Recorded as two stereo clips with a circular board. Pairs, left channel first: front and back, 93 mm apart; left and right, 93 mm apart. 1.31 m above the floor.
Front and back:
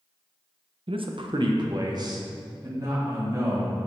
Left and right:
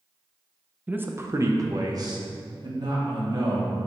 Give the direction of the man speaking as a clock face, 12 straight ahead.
5 o'clock.